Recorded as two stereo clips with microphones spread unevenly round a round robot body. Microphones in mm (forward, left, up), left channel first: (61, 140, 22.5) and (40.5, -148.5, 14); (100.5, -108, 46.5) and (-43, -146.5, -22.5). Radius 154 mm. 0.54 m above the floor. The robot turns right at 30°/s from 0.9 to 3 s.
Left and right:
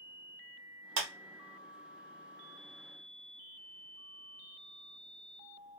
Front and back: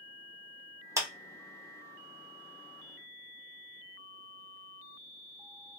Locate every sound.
1.0 s a clap: 105° right, 1.1 m; by 1.1 s 100° right, 1.1 m